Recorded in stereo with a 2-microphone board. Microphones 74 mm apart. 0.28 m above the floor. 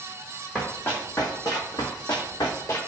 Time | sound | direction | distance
0.6 | running footsteps | 25° left (ahead or behind) | 1.2 m